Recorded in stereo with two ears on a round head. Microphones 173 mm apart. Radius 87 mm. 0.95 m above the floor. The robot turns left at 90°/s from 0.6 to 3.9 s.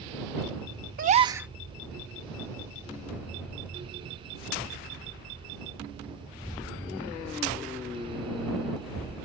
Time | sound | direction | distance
1.0 | a gasp | 130° right | ?